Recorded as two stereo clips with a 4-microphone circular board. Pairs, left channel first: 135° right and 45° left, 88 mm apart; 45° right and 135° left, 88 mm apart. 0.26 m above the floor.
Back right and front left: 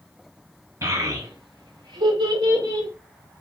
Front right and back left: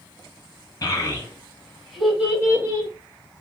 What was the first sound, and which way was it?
A child speaking, straight ahead.